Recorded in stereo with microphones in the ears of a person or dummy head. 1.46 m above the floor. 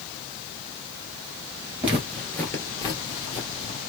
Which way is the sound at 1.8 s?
15° right (ahead or behind).